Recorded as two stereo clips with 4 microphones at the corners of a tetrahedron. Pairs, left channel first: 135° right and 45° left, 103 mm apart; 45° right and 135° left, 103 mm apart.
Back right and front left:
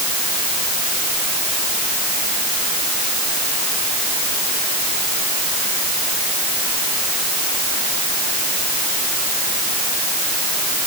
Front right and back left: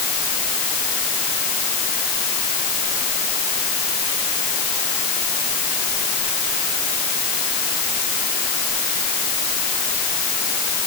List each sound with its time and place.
Only background noise.